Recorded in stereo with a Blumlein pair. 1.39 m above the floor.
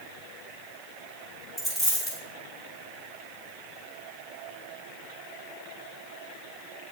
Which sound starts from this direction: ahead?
A dropped coin, at 1.6 s.